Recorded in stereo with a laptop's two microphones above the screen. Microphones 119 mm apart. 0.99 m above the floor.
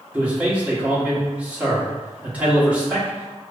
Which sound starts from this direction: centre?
A man speaking, at 0.1 s.